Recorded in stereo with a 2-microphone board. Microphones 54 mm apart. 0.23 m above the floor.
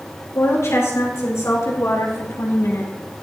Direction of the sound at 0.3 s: 60° left (ahead or behind).